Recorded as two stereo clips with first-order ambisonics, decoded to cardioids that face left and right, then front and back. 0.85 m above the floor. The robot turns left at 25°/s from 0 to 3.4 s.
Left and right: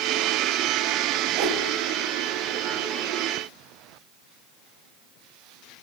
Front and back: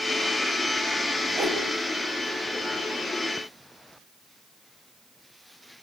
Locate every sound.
1.4 s a whoosh: 115° right, 4.5 m; by 1.6 s 125° right, 4.5 m